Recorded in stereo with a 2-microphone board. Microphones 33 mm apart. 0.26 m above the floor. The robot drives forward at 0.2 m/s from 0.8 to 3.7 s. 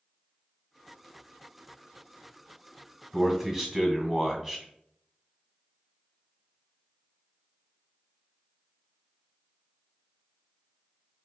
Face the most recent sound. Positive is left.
turn(degrees=-20)  # may be behind; listen again after turning